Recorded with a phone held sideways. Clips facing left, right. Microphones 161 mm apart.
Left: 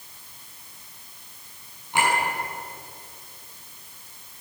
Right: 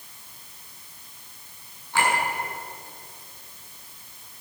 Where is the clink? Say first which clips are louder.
Left 1 dB; 20° left (ahead or behind), 9.5 m.